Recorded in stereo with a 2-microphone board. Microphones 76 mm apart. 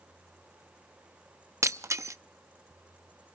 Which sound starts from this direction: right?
Breaking glass, at 1.6 s.